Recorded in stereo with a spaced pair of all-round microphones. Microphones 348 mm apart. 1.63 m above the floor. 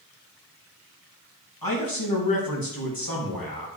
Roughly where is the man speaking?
Left.